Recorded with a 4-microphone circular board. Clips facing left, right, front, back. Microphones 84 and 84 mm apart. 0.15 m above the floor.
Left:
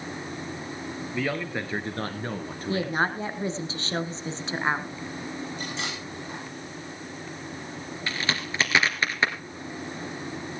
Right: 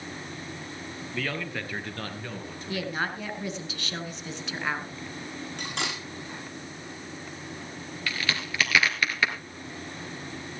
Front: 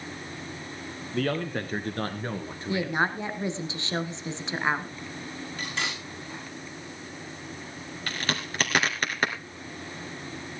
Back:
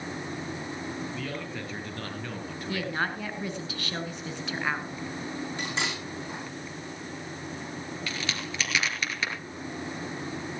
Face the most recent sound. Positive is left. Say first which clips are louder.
# left 1 dB, front 5 dB
turn(degrees=30)